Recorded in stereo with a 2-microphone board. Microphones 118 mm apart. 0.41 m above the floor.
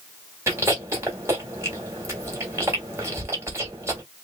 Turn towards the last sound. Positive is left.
turn(degrees=-25)  # may be behind; listen again after turning